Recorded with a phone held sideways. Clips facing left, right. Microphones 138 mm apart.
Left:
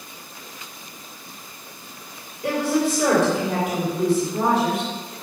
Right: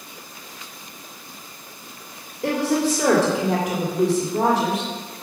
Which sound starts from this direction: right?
A woman speaking, at 2.4 s.